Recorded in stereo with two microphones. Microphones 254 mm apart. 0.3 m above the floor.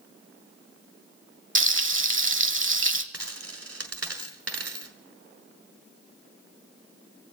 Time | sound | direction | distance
1.6 | frying | 50° right (ahead or behind) | 0.8 m
3.1 | a dropped coin | 70° right (ahead or behind) | 1.5 m